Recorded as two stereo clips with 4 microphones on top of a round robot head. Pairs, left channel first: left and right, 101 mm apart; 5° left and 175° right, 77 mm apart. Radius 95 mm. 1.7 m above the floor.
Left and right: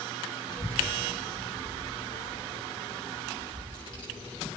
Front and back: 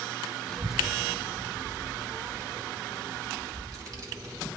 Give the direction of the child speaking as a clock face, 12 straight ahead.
9 o'clock.